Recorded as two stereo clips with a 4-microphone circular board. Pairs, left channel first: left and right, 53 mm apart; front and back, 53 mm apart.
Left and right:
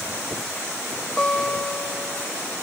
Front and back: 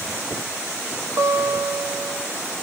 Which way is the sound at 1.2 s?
175° left.